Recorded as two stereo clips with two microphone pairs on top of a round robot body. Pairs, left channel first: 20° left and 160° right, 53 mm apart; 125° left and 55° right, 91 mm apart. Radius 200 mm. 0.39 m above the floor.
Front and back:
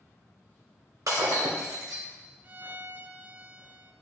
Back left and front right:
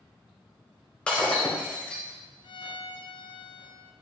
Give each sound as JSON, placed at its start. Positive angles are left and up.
{"t": 1.1, "sound": "breaking glass", "azimuth_deg": -155, "distance_m": 1.5}
{"t": 2.4, "sound": "a violin", "azimuth_deg": 150, "distance_m": 0.5}